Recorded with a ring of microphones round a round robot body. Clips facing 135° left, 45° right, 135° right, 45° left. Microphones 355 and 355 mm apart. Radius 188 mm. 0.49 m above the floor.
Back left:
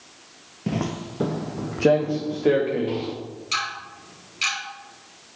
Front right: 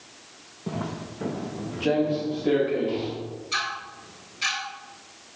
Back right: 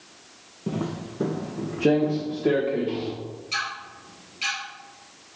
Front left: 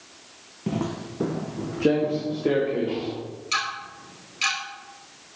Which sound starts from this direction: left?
Ticking, at 3.5 s.